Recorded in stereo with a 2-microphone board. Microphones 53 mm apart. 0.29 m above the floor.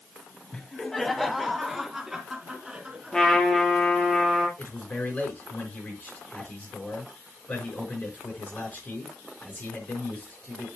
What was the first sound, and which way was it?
Laughter, 15° left (ahead or behind).